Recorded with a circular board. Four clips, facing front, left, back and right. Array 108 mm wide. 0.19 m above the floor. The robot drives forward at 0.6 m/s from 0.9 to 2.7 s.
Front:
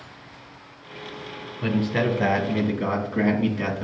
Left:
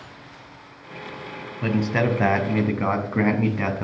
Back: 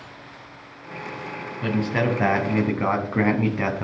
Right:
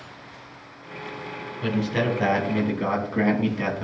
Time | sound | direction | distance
1.6 | a man speaking | 85° left | 1.1 m